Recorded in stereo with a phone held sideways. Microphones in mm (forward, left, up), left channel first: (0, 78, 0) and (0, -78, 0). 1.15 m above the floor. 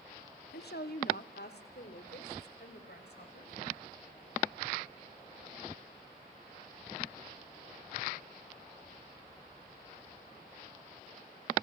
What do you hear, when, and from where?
0.5 s a woman speaking: 80° left, 1.2 m; by 3.5 s 85° left, 5.5 m